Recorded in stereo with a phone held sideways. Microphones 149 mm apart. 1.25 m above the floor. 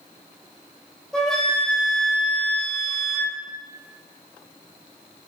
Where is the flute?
5° left (ahead or behind), 1.0 m.